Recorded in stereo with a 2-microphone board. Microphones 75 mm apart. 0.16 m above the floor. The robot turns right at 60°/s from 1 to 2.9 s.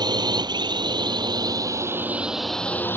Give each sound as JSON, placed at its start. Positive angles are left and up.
{"t": 0.0, "sound": "a drone", "side_deg": -70}